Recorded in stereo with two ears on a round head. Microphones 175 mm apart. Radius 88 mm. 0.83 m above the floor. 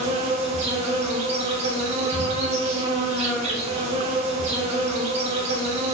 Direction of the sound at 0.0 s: 35° right (ahead or behind).